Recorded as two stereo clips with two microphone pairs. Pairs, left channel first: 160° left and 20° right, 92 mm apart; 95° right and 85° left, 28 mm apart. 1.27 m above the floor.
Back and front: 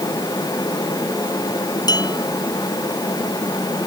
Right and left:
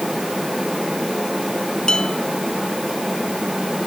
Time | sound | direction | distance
1.9 | dishes clattering | 160° right | ?